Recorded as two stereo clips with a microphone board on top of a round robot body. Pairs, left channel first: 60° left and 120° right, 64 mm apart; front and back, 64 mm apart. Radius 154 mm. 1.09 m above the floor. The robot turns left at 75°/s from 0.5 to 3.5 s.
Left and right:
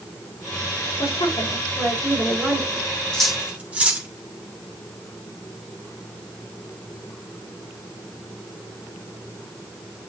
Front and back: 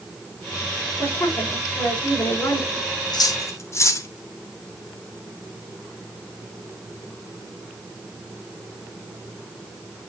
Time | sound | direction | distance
1.0 | a woman speaking | 75° left | 4.5 m
3.1 | cutlery clinking | 20° right | 1.8 m